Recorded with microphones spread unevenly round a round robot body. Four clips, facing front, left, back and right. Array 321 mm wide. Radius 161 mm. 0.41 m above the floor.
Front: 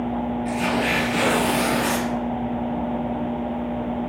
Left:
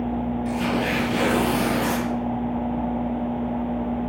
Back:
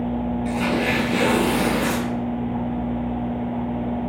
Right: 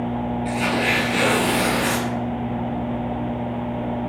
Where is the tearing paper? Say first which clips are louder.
Right 2 dB, back 1 dB; 165° left, 5.5 m.